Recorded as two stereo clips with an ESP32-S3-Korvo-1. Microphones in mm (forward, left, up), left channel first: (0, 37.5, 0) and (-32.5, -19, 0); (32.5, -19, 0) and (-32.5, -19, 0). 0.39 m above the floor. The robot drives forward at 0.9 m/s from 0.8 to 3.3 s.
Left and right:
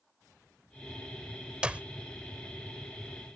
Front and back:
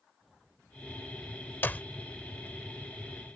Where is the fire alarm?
I don't hear a fire alarm.